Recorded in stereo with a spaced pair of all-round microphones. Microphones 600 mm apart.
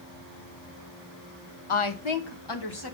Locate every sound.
1.7 s a woman speaking: 55° left (ahead or behind), 0.8 m; by 3.0 s 35° left (ahead or behind), 1.3 m